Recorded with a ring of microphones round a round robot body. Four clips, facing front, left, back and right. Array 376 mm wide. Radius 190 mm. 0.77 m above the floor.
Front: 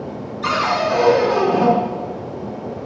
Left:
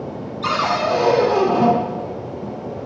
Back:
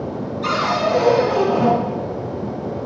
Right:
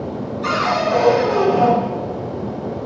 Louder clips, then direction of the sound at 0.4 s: Even, front 1 dB; 70° left.